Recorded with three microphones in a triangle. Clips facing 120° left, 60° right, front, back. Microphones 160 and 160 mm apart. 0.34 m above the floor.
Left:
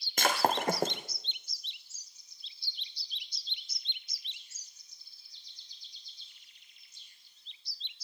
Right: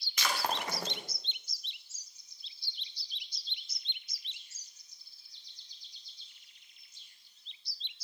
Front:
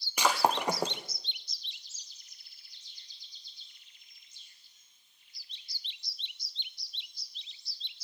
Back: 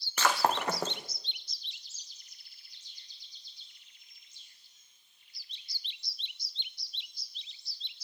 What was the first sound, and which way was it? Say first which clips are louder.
Breaking glass: left 6 dB, front 1 dB; 75° left.